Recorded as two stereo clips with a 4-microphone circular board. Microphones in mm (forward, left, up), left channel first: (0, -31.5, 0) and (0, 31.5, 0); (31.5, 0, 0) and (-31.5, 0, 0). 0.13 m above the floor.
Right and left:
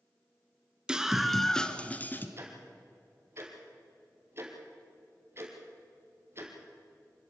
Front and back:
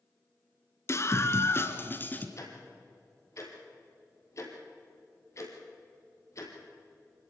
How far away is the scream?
About 1.7 m.